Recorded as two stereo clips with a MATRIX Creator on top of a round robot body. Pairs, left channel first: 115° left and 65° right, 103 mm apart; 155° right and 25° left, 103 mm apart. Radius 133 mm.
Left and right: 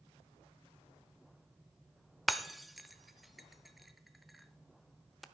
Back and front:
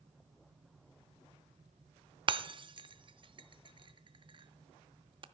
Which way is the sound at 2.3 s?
20° left.